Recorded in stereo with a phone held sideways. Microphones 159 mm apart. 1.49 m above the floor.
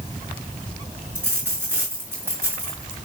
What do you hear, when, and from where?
1.1 s a dropped coin: 15° right (ahead or behind), 6 m